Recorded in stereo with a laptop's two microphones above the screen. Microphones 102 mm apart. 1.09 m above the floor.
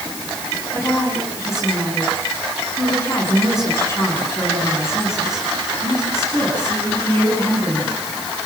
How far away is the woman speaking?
About 9.5 m.